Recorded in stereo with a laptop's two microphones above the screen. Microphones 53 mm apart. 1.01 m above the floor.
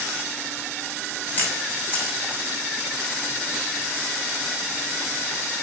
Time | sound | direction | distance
1.4 | a camera shutter | 30° left (ahead or behind) | 8 m